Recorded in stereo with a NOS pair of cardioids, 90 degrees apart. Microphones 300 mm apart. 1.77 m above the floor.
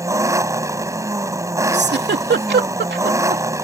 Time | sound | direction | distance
0.0 | an engine running | 10° right | ?
1.7 | a giggle | 35° right | ?